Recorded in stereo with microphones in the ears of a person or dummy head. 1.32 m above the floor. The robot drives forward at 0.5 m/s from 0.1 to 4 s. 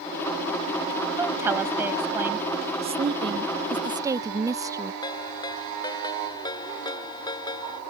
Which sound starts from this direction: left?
A ringtone, at 5.0 s.